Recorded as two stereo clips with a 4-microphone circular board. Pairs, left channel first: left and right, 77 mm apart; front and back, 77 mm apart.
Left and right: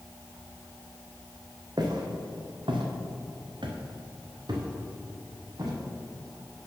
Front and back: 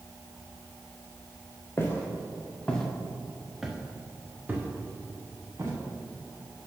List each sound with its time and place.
1.8 s footsteps: 60° right, 1.5 m; by 5.8 s 125° right, 2 m